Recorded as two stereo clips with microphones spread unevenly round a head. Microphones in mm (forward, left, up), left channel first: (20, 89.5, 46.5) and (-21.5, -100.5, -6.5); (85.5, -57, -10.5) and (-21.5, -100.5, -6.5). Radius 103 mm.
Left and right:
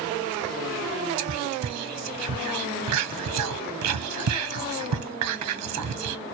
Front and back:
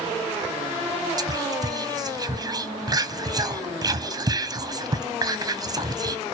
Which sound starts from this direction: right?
Whispering, at 1.2 s.